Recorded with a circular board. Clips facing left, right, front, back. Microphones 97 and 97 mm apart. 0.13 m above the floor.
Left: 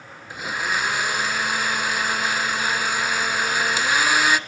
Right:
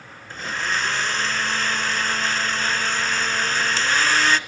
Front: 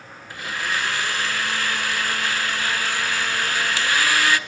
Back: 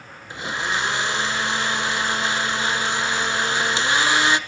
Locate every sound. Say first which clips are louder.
0.3 s a blender: left 1 dB, back 2 dB; 155° left, 0.8 m